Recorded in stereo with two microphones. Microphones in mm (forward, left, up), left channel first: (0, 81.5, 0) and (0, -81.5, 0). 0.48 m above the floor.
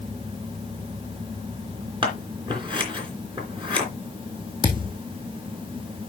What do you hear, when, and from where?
2.0 s scissors: 30° right (ahead or behind), 3 m
4.6 s a thud: 30° right (ahead or behind), 1.9 m